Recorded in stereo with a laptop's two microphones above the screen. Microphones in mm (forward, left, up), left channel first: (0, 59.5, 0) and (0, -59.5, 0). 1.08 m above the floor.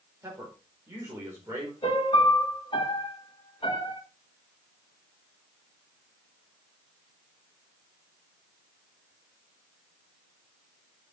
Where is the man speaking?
25° right (ahead or behind), 4.5 m.